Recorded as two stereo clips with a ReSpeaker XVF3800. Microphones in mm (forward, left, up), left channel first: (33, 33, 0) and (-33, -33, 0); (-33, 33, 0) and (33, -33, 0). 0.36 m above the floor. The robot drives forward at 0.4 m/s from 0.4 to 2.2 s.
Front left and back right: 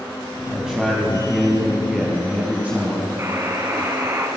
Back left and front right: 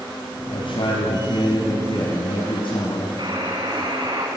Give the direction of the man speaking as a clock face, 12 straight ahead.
7 o'clock.